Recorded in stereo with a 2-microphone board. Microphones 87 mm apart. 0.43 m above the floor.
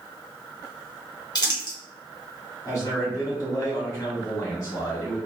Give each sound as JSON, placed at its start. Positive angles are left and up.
{"t": 1.4, "sound": "crumpling", "side_deg": 45, "distance_m": 1.6}
{"t": 2.6, "sound": "a man speaking", "side_deg": 35, "distance_m": 1.8}